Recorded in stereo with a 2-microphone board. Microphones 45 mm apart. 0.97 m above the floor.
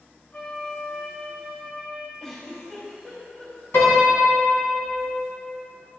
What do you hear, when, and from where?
0.3 s a flute: 40° left (ahead or behind), 2.5 m
2.2 s a giggle: 20° left (ahead or behind), 3.5 m
3.7 s a piano: 65° left (ahead or behind), 2.5 m